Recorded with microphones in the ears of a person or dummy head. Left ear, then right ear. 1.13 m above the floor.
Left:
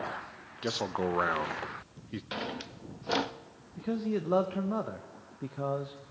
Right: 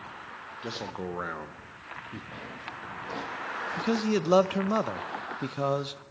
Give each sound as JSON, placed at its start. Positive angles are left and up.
{"t": 0.6, "sound": "a man speaking", "side_deg": 15, "distance_m": 0.5}
{"t": 2.3, "sound": "a drawer", "side_deg": 45, "distance_m": 0.5}
{"t": 3.8, "sound": "a man speaking", "side_deg": -85, "distance_m": 0.5}